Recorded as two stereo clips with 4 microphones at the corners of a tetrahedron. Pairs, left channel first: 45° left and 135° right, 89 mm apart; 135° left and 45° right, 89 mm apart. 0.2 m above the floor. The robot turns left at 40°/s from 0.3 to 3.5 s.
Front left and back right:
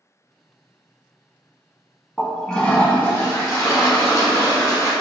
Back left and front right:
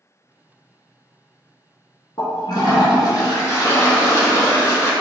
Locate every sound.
2.2 s a toilet flushing: 140° left, 0.9 m; by 4.9 s 85° left, 0.9 m